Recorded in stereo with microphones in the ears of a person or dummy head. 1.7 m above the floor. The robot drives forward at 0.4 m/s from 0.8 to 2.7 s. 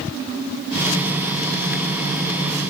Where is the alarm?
I don't hear an alarm.